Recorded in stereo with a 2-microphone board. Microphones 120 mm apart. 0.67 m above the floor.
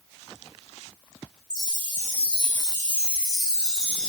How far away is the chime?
About 1.4 m.